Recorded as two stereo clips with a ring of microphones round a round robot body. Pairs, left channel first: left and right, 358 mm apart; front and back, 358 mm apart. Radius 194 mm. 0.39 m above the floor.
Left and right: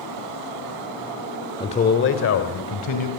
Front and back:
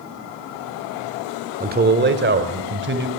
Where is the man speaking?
155° left, 1.3 m; by 3.1 s 125° left, 2.5 m.